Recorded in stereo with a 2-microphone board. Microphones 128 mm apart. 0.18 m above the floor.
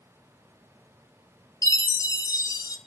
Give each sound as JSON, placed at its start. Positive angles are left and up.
{"t": 1.6, "sound": "a chime", "side_deg": 30, "distance_m": 0.7}